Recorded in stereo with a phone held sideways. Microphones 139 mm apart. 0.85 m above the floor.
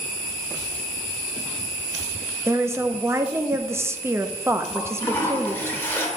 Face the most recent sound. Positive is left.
turn(degrees=15)  # may be behind; listen again after turning